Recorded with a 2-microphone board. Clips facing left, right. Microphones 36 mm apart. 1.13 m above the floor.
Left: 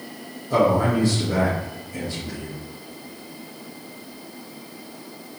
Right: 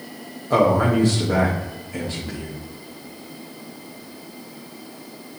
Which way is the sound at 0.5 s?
45° right (ahead or behind).